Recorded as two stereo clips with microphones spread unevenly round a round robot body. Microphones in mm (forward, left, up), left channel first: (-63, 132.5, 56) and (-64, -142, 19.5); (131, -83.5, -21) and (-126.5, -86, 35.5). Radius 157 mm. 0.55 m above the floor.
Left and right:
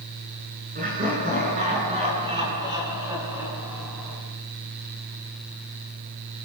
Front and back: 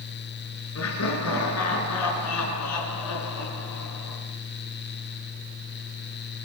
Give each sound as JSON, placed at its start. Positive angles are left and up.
{"t": 0.8, "sound": "laughter", "azimuth_deg": -25, "distance_m": 8.5}